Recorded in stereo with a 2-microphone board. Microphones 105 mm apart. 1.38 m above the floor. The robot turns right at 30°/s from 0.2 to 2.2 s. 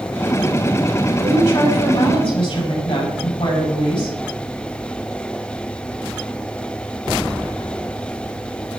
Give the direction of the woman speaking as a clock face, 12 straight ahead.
11 o'clock.